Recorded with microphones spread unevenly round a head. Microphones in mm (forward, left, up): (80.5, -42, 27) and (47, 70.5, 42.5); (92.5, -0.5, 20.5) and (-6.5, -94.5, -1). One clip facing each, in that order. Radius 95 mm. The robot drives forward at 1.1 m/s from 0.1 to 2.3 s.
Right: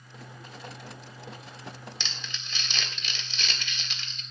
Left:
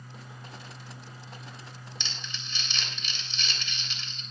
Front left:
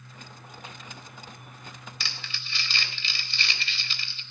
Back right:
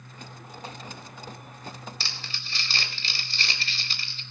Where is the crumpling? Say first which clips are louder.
Right 1 dB, back right 1 dB; 80° right, 3.5 m; by 4.2 s 85° right, 3.5 m.